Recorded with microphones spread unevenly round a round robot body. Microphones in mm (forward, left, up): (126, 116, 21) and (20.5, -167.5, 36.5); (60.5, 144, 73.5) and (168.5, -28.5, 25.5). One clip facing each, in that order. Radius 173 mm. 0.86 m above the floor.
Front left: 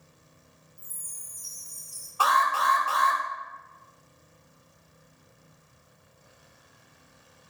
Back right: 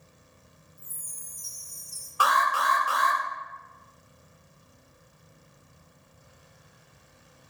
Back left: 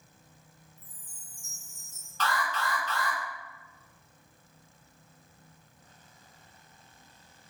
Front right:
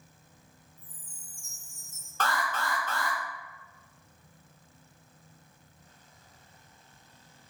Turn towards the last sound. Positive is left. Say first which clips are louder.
# even, even
turn(degrees=-35)